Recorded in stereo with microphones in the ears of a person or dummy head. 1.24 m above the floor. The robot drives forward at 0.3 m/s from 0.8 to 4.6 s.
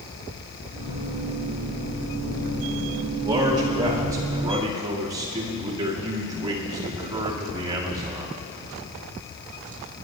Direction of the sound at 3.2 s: 20° right (ahead or behind).